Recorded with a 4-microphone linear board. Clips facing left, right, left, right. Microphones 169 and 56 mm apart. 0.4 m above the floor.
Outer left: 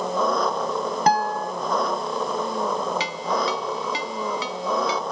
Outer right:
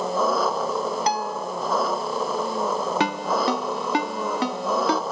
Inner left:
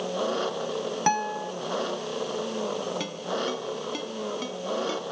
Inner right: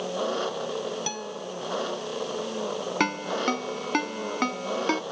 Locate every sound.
0.0 s an engine running: 5° right (ahead or behind)
1.1 s a guitar: 50° left (ahead or behind)
3.0 s a ringtone: 60° right (ahead or behind)